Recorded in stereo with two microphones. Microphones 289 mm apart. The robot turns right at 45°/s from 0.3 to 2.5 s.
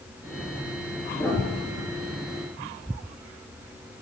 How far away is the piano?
About 5.5 m.